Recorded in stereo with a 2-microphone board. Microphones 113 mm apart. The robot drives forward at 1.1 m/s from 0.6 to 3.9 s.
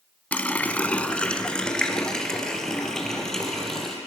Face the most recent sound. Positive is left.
turn(degrees=5)  # may be behind; listen again after turning